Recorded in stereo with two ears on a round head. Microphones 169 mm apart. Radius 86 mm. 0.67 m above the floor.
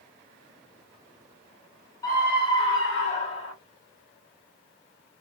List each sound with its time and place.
2.0 s a scream: 20° left (ahead or behind), 1.1 m; by 3.5 s 35° left (ahead or behind), 0.7 m